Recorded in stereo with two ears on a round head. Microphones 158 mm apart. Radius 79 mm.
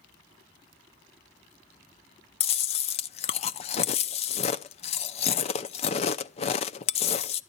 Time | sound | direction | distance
2.4 | chewing | 35° left (ahead or behind) | 0.6 m